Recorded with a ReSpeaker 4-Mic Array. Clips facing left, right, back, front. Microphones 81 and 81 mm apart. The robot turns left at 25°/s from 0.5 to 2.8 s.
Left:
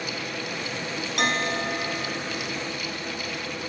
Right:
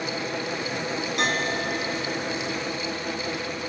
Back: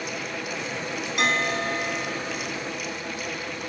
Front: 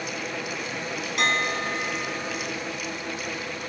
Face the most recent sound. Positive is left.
turn(degrees=55)